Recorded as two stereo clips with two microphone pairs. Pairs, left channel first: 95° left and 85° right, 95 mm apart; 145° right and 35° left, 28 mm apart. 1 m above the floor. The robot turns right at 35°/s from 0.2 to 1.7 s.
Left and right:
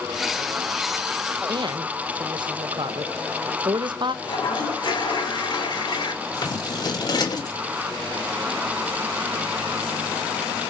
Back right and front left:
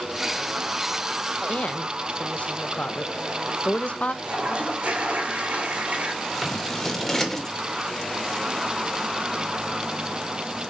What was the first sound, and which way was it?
A woman speaking, 125° right.